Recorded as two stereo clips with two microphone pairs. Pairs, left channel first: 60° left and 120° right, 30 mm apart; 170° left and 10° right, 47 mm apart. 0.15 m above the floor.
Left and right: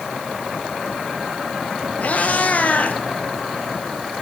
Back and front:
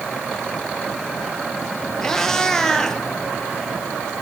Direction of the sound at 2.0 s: 95° left.